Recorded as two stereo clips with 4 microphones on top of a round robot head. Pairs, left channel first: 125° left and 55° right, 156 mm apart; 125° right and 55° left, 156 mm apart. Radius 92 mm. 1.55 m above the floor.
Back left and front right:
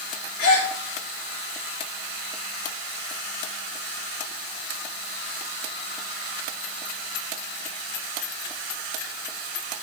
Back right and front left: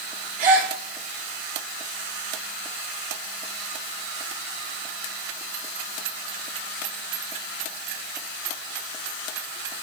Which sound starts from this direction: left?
A gasp, at 0.4 s.